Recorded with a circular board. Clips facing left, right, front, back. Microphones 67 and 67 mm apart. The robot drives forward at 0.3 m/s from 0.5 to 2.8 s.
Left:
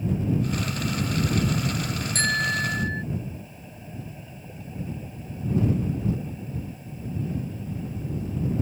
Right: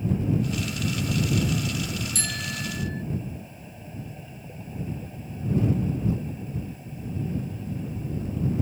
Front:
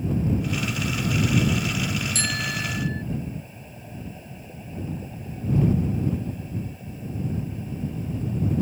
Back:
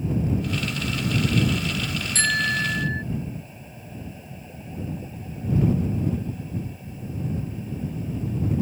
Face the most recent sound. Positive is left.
turn(degrees=130)